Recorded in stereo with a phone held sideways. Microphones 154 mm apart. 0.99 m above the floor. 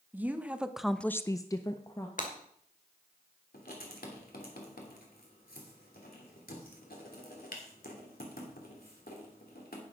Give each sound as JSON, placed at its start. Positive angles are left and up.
{"t": 0.1, "sound": "a woman speaking", "side_deg": -10, "distance_m": 1.4}
{"t": 2.2, "sound": "breaking glass", "side_deg": 60, "distance_m": 2.0}
{"t": 3.5, "sound": "writing", "side_deg": 75, "distance_m": 3.0}